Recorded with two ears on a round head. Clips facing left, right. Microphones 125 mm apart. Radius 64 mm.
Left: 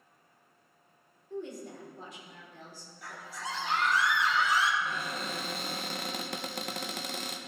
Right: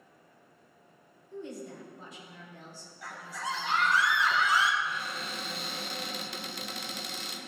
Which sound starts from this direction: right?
A scream, at 3.0 s.